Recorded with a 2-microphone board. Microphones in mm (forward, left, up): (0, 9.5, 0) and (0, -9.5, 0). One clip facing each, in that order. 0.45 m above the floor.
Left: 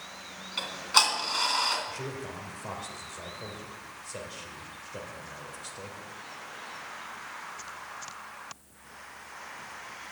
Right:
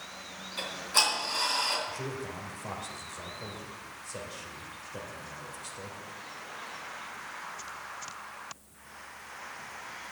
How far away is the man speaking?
About 2 m.